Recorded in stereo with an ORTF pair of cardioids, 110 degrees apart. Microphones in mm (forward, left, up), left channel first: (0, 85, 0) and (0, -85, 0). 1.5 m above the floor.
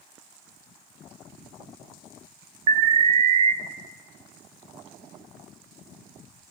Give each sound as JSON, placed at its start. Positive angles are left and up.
{"t": 2.7, "sound": "an alarm", "azimuth_deg": -40, "distance_m": 0.5}